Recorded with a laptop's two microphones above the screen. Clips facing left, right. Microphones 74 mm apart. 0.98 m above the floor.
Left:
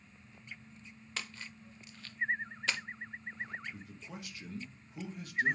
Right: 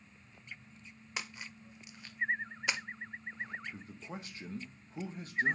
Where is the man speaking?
35° right (ahead or behind), 0.9 m.